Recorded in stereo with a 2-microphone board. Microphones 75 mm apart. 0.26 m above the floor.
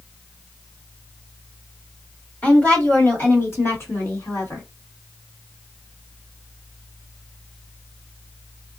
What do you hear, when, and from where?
2.4 s a woman speaking: 25° left (ahead or behind), 1.6 m; by 4.7 s 50° left (ahead or behind), 2 m